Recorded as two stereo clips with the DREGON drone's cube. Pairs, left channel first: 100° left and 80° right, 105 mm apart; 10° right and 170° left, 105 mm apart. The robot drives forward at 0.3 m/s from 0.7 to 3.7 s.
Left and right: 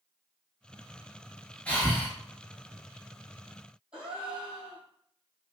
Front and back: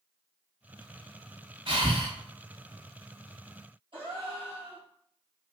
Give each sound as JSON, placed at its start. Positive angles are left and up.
{"t": 1.7, "sound": "breathing", "azimuth_deg": 175, "distance_m": 1.2}
{"t": 3.9, "sound": "a gasp", "azimuth_deg": -160, "distance_m": 2.0}